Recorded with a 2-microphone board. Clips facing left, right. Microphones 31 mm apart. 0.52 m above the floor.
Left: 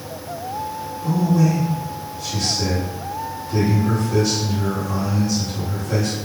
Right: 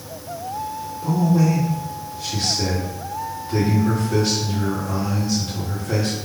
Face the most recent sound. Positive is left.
turn(degrees=-30)  # may be behind; listen again after turning